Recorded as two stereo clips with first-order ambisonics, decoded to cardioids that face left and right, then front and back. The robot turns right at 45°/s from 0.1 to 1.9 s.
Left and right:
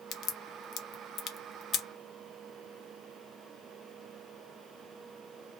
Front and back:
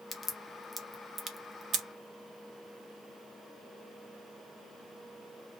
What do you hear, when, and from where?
0.1 s a crack: 65° left, 0.6 m; by 1.9 s 140° left, 0.6 m